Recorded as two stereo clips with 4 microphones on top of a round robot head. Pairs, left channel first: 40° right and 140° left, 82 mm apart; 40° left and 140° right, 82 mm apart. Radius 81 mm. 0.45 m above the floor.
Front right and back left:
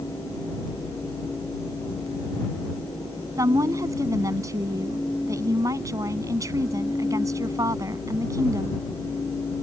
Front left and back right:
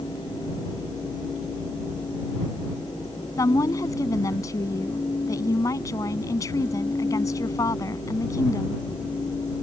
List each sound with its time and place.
3.4 s a woman speaking: 90° left